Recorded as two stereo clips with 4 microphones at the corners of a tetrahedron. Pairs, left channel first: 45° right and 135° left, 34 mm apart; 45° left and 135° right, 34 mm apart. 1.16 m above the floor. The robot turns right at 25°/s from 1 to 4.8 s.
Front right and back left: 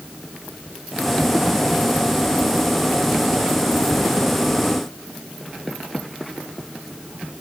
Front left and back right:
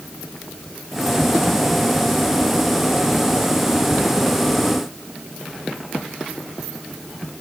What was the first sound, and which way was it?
Only background noise.